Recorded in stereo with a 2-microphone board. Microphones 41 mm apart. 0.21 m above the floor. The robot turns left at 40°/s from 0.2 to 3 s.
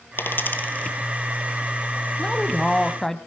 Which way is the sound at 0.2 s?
60° left (ahead or behind).